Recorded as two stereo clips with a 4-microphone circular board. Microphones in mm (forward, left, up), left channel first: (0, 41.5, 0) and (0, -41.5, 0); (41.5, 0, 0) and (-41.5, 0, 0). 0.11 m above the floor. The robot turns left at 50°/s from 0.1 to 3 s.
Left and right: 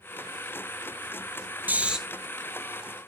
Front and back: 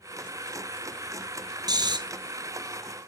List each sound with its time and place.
1.7 s snoring: 155° right, 1.0 m; by 2.0 s 170° right, 1.0 m